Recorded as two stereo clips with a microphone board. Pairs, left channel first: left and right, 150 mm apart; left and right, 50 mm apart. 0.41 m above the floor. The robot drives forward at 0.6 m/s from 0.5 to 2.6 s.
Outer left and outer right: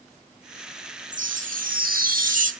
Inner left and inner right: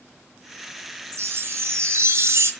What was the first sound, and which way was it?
A chime, 55° right (ahead or behind).